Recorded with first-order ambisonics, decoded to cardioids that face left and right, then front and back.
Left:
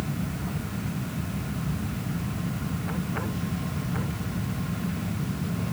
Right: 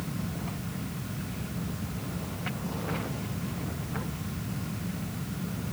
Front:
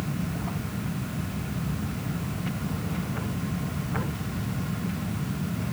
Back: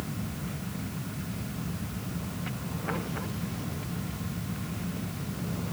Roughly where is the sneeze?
I don't hear a sneeze.